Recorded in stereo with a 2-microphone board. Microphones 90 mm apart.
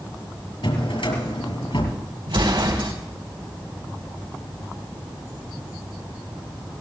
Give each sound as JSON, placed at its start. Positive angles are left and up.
{"t": 0.6, "sound": "a drawer", "side_deg": 85, "distance_m": 4.0}
{"t": 2.3, "sound": "an explosion", "side_deg": -80, "distance_m": 3.5}